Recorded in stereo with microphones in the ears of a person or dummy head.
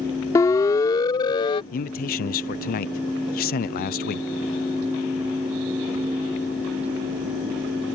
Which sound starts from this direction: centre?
A siren, at 0.3 s.